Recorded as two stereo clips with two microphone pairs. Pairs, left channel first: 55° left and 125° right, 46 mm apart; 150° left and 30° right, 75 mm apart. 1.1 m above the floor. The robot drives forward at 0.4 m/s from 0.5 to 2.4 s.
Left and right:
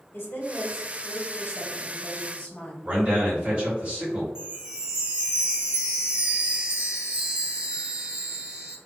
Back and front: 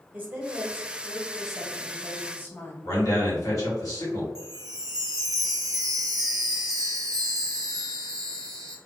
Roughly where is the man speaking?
Behind.